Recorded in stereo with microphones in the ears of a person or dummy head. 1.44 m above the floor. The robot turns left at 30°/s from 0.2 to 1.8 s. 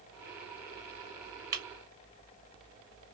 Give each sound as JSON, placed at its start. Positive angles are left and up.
{"t": 1.5, "sound": "breaking glass", "side_deg": -20, "distance_m": 0.8}